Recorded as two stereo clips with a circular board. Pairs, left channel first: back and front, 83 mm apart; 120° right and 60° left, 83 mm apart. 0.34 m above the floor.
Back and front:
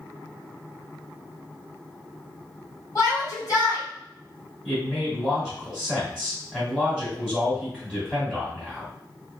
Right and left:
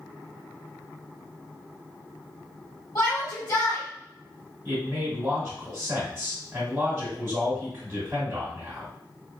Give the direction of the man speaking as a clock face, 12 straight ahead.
9 o'clock.